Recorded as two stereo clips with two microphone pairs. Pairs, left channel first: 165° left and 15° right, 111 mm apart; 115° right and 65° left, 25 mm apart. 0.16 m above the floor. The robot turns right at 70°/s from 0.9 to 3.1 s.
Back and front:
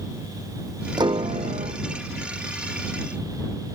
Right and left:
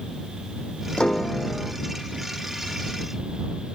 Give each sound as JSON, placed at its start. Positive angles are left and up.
{"t": 1.0, "sound": "a piano", "azimuth_deg": -65}